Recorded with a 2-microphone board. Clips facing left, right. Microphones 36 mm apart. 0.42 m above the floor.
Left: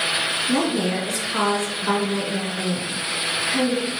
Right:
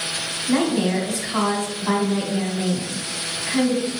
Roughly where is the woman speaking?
Right.